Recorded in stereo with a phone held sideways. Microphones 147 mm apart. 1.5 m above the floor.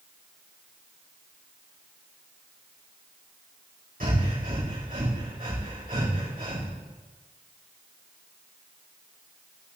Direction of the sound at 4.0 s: 75° right (ahead or behind).